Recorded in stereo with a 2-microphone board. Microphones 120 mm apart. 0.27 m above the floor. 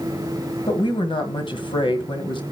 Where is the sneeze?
I don't hear a sneeze.